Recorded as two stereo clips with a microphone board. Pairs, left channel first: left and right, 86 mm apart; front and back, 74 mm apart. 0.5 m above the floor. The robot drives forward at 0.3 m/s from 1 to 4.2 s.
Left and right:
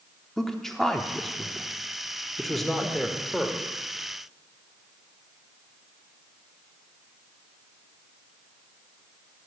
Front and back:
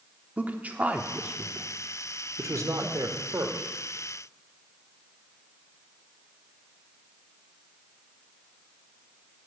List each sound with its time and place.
0.4 s a man speaking: 170° left, 0.8 m; by 3.7 s 175° left, 1.3 m